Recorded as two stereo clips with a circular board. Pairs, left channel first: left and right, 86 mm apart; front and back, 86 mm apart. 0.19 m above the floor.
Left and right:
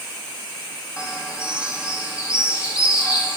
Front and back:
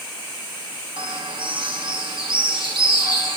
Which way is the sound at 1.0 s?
170° right.